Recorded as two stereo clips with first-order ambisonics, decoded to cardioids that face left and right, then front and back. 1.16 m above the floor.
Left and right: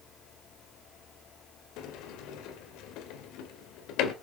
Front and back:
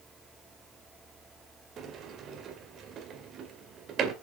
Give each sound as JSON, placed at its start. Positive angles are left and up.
{"t": 1.8, "sound": "a sliding door", "azimuth_deg": 120, "distance_m": 2.0}